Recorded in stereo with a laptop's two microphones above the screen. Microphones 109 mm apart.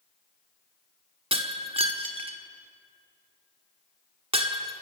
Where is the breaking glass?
60° right (ahead or behind), 1.3 m.